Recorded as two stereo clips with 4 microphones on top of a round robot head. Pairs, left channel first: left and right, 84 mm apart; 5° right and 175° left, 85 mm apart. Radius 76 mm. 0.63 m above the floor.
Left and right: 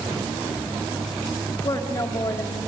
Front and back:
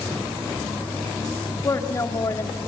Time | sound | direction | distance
1.6 | a woman speaking | 40° left | 1.9 m